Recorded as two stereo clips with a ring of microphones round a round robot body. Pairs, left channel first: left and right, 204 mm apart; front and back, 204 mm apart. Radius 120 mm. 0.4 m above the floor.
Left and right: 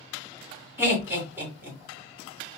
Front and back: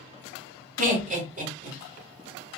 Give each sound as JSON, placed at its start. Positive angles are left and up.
{"t": 0.8, "sound": "laughter", "azimuth_deg": -165, "distance_m": 1.3}